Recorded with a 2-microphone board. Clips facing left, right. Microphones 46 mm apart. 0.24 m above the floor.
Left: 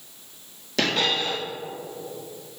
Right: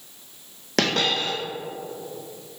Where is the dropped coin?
60° right (ahead or behind), 2 m.